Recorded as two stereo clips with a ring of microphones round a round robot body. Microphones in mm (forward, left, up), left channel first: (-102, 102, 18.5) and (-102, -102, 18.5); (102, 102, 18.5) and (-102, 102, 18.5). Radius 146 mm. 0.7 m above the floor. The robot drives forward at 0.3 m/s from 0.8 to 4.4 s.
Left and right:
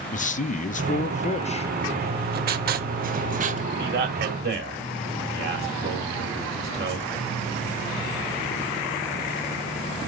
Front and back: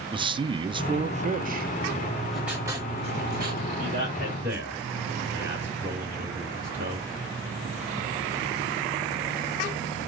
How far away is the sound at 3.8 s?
About 1.7 m.